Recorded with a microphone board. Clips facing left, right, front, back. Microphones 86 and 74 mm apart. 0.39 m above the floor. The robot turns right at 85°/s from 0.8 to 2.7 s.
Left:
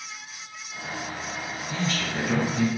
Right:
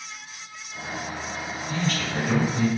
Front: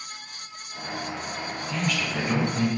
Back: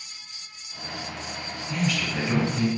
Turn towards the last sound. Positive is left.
turn(degrees=-30)